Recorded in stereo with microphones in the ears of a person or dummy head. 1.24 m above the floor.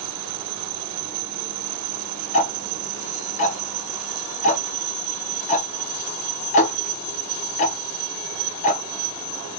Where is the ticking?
35° left (ahead or behind), 0.7 m.